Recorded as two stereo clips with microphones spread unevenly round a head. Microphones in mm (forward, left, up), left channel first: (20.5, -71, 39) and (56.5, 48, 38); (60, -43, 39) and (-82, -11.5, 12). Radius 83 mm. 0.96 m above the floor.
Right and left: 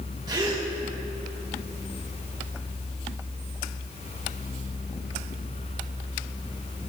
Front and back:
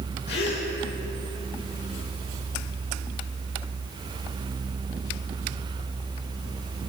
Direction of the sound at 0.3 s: 15° left.